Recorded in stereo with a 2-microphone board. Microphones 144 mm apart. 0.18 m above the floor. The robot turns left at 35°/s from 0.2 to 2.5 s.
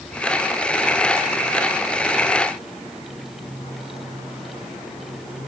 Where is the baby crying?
No baby crying in this recording.